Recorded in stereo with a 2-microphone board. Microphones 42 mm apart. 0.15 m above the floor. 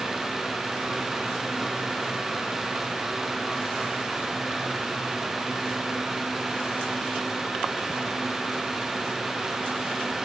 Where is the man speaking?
I don't hear a man speaking.